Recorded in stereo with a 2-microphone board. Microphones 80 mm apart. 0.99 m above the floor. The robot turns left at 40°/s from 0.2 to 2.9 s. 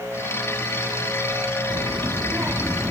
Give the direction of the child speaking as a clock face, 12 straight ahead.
4 o'clock.